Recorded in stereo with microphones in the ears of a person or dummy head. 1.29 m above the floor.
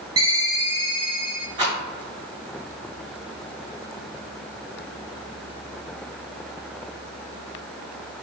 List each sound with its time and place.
0.2 s a ringtone: 25° right (ahead or behind), 0.5 m
1.6 s a rattle: 25° right (ahead or behind), 1.6 m